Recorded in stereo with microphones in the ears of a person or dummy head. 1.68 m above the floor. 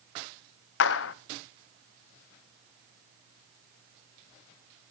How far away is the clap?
About 0.7 m.